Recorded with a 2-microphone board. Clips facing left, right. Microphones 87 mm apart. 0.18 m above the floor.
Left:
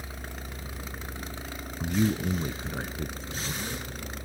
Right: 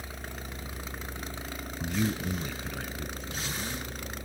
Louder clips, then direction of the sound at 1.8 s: Left 4 dB; 15° left (ahead or behind).